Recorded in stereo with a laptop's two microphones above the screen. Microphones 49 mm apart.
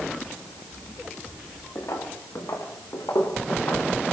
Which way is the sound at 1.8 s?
80° left.